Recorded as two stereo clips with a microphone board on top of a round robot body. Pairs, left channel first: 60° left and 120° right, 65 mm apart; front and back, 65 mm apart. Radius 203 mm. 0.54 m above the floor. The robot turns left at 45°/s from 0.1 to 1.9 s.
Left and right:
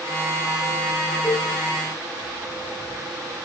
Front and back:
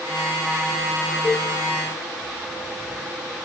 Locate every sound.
1.2 s a cowbell: 35° right, 0.6 m; by 1.5 s 45° right, 0.6 m